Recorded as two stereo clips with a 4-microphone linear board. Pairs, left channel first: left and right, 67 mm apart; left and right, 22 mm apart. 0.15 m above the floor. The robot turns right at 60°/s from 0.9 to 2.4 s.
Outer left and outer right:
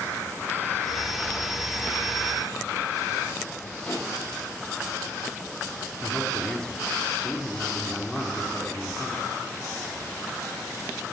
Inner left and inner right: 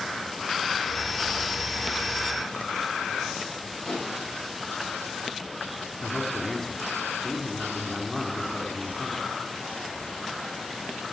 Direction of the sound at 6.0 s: 10° left (ahead or behind).